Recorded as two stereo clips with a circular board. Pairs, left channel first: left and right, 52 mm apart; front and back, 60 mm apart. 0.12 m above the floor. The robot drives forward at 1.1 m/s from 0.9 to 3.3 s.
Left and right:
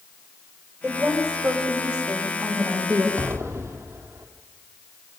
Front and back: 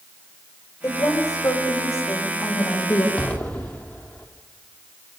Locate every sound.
0.8 s a woman speaking: 20° right, 8.5 m; by 3.1 s 30° right, 6.5 m
3.2 s an explosion: 60° right, 3.5 m